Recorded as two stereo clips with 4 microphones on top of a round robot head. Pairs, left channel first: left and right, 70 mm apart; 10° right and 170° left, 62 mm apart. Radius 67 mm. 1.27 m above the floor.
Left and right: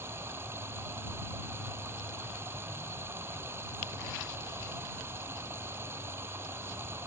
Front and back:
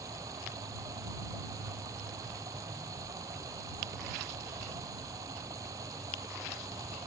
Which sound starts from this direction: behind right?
Running water, at 0.0 s.